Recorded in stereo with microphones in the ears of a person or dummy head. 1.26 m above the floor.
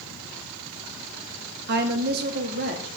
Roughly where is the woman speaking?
Right.